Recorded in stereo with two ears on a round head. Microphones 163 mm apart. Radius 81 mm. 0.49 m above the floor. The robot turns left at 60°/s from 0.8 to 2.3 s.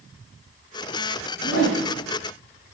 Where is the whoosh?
65° left (ahead or behind), 1.7 m; by 1.8 s 75° left (ahead or behind), 1.7 m.